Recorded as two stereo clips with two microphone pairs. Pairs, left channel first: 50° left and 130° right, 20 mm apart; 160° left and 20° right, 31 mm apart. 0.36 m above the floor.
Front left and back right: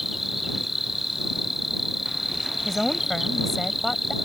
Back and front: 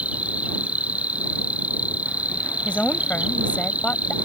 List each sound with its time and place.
0.0 s an insect: 50° right
2.6 s a woman speaking: 125° left